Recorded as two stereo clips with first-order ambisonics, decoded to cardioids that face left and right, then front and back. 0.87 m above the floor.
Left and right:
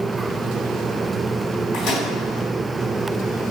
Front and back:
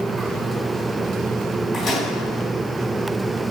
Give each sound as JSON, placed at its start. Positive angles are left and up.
{"t": 1.7, "sound": "a microwave", "azimuth_deg": 60, "distance_m": 1.7}